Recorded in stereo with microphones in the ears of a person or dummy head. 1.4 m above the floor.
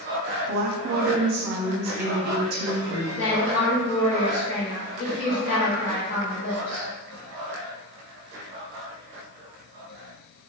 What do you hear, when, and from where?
0.5 s a woman speaking: 55° right (ahead or behind), 0.6 m
3.2 s a woman speaking: 65° left (ahead or behind), 1.1 m